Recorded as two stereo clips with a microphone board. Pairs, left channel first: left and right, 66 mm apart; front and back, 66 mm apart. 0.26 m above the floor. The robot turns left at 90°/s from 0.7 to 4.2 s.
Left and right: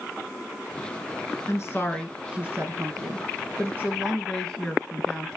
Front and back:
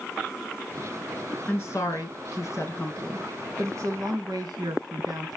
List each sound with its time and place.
1.4 s a woman speaking: 60° left, 3 m; by 5.4 s 175° left, 3 m